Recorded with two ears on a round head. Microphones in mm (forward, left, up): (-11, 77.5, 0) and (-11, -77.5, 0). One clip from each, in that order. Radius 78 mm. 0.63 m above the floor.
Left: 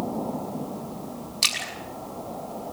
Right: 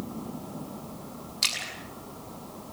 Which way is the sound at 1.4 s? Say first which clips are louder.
Left 4 dB; 10° left (ahead or behind).